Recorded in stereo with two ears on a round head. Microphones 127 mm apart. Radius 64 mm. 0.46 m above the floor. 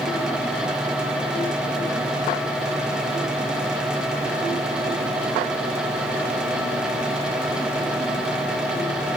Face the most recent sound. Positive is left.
No sound to turn to.